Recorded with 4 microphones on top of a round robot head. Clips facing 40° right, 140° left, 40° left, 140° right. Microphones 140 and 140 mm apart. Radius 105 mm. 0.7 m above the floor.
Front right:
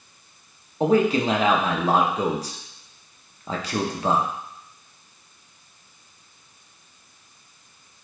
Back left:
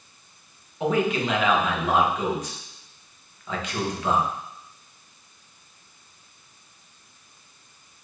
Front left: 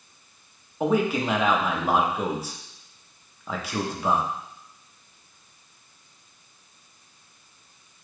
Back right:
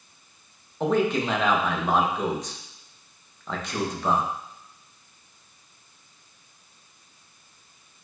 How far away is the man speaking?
About 0.8 m.